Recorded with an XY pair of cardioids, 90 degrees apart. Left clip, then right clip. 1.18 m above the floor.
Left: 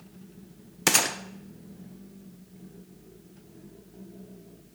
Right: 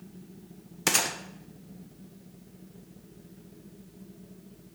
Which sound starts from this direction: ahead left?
A gunshot, at 0.9 s.